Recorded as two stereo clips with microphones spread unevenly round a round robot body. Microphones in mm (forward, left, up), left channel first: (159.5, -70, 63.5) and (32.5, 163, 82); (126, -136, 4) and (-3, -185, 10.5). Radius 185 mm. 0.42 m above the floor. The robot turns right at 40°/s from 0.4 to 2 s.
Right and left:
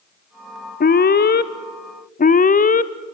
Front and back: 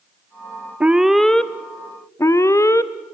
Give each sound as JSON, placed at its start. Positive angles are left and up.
{"t": 0.8, "sound": "an alarm", "azimuth_deg": -80, "distance_m": 0.9}